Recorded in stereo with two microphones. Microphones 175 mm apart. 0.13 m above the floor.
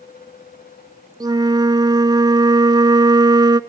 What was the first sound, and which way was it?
A flute, 25° right (ahead or behind).